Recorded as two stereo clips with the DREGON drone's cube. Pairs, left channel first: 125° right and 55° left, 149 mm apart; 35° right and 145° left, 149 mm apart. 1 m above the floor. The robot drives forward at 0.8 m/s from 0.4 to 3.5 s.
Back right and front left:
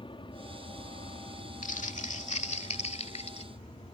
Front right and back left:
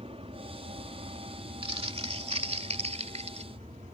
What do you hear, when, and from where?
0.0 s an aircraft: 175° right
1.6 s crumpling: 160° right; by 3.5 s 170° right